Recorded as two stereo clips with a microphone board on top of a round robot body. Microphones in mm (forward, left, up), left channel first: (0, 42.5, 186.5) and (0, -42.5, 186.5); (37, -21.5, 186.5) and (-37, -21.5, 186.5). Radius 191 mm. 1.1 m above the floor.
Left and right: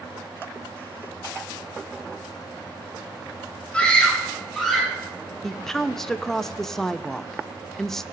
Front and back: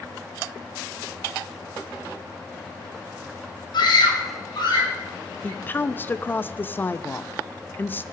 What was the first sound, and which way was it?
A scream, 10° left.